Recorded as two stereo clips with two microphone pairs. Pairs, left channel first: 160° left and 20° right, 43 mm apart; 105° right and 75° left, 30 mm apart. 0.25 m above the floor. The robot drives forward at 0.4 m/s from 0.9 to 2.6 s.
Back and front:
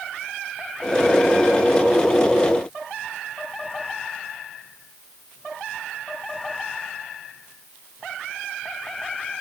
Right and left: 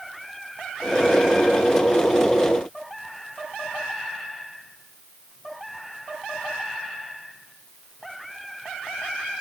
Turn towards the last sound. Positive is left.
No sound to turn to.